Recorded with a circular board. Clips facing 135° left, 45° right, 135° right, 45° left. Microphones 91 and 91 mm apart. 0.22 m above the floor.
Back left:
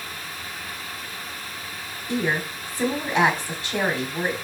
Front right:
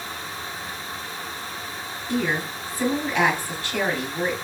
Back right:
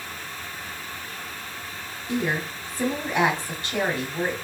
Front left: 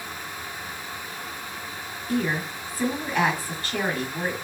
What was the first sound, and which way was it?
A woman speaking, 175° right.